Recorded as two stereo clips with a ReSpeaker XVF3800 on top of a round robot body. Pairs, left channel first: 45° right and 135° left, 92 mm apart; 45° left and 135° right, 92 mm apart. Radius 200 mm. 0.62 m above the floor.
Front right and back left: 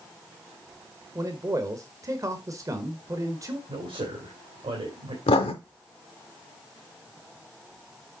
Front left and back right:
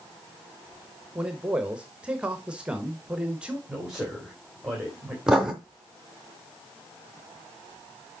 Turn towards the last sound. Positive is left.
turn(degrees=-50)